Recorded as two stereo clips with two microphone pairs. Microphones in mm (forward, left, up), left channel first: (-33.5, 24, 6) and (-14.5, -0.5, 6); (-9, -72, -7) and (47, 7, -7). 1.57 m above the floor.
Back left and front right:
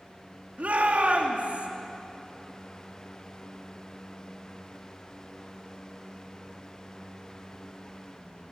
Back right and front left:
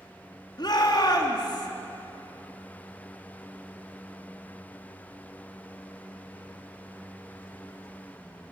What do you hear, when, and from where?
0.6 s a shout: 85° right, 3.5 m